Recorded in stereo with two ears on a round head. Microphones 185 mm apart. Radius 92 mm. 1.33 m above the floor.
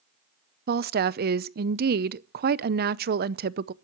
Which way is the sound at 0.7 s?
45° right (ahead or behind).